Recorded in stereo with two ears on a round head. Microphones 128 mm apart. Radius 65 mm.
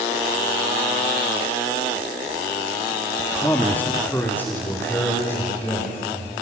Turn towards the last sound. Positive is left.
turn(degrees=15)  # may be behind; listen again after turning